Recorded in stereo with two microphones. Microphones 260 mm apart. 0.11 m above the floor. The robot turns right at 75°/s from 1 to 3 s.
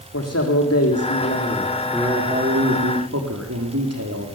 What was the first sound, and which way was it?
A man speaking, 105° left.